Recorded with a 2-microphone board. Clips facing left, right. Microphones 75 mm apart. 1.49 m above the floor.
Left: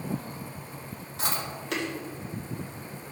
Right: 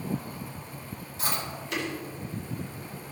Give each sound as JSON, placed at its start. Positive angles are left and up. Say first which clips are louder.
{"t": 1.2, "sound": "chewing", "louder": "even", "side_deg": 85, "distance_m": 4.0}